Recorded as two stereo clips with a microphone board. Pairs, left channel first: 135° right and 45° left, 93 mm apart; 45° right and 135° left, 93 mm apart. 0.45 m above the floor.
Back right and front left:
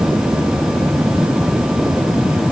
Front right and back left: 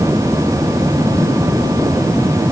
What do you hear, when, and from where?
Only background noise.